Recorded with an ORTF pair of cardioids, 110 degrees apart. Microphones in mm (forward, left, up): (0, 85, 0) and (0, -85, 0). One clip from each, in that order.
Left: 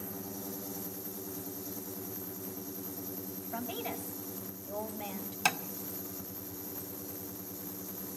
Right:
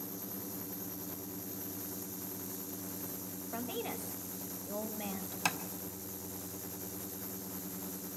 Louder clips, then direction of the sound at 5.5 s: Left 4 dB; 15° left.